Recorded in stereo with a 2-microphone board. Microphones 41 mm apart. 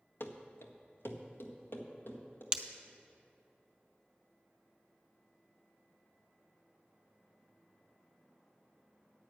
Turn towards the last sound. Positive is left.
turn(degrees=-25)  # may be behind; listen again after turning